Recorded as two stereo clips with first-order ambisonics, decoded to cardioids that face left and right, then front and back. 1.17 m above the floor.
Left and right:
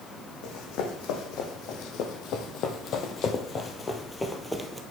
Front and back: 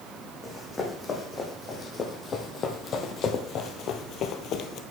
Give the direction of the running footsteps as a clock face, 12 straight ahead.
10 o'clock.